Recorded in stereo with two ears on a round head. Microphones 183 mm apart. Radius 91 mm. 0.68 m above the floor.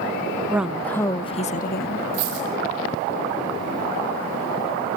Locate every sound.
0.5 s a woman speaking: 10° right (ahead or behind), 0.8 m; by 2.0 s 50° left (ahead or behind), 0.9 m
2.1 s a dropped coin: 85° right, 9.5 m